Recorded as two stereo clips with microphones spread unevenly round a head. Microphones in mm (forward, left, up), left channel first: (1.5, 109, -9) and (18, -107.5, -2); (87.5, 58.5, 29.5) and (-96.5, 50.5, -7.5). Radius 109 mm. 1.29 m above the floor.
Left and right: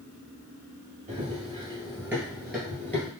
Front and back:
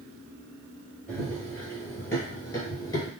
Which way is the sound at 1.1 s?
65° right.